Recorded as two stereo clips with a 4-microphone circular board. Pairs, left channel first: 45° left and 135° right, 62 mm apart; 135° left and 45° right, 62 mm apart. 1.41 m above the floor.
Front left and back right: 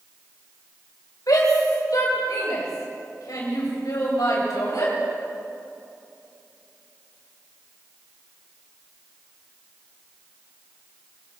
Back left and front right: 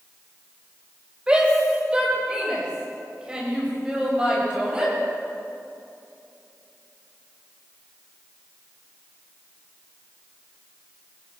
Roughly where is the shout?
Ahead left.